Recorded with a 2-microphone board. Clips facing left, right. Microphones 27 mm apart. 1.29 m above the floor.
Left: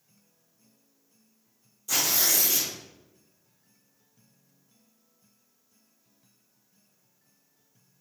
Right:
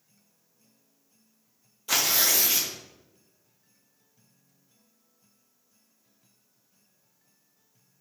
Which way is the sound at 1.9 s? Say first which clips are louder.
Right 2 dB; 45° right (ahead or behind).